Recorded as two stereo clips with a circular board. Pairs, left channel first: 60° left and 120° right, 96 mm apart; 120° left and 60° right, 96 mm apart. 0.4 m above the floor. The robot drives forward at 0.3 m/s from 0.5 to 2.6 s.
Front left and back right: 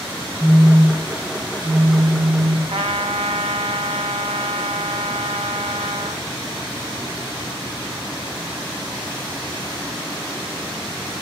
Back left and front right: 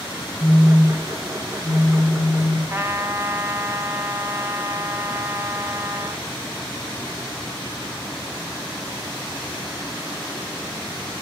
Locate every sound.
0.4 s a phone buzzing: 145° left, 1.0 m; by 2.6 s 165° left, 1.4 m
2.7 s a trumpet: 120° right, 0.6 m